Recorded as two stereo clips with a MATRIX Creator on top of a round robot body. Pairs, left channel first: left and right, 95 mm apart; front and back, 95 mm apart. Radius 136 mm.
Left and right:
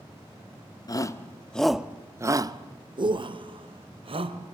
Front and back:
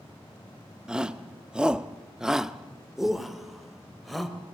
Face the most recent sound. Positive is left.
turn(degrees=-90)